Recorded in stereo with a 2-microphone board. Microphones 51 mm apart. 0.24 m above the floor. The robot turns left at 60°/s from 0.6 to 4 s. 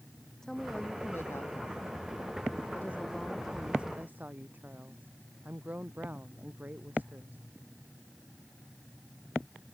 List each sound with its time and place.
0.4 s a woman speaking: 170° left; by 7.4 s 35° right